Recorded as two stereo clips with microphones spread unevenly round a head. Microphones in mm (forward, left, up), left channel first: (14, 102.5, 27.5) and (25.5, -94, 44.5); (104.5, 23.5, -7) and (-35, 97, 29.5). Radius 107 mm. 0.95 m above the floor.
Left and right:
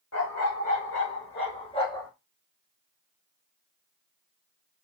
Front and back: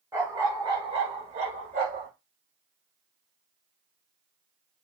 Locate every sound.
0.1 s a dog barking: 90° left, 1.4 m; by 2.1 s 175° left, 1.1 m